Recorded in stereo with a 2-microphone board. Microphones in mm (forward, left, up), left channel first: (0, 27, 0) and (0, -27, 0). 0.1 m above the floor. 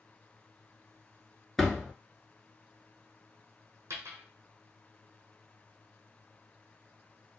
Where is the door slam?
5° left (ahead or behind), 0.8 m.